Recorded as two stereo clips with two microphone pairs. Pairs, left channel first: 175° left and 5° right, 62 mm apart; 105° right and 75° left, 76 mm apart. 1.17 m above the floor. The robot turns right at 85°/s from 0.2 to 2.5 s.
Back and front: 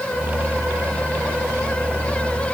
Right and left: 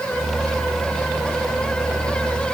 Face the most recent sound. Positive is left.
No sound to turn to.